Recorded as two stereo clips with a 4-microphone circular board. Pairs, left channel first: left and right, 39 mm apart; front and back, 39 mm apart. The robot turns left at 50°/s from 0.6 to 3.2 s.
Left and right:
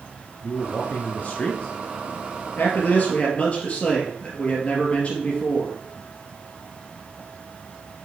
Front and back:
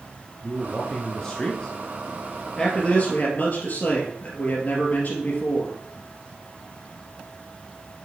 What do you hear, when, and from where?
0.4 s a man speaking: 95° left, 1.3 m; by 1.7 s 35° left, 1.3 m
2.6 s a man speaking: 70° left, 2 m; by 5.8 s 40° left, 2 m